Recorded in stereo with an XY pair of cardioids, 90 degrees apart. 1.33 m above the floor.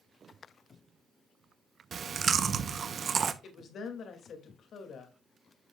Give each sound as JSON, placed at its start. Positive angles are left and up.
{"t": 1.9, "sound": "chewing", "azimuth_deg": -50, "distance_m": 0.8}
{"t": 3.4, "sound": "a woman speaking", "azimuth_deg": 65, "distance_m": 2.5}